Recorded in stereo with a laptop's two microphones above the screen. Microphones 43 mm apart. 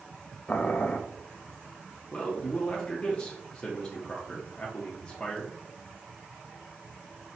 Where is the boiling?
30° left (ahead or behind), 0.5 m.